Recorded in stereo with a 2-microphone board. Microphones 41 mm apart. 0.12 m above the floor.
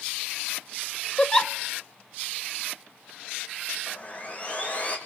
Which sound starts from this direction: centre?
A giggle, at 1.2 s.